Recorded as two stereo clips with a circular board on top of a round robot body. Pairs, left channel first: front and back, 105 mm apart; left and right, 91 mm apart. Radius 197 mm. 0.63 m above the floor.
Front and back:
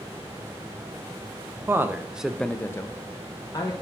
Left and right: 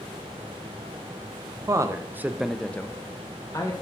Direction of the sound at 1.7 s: 125° right.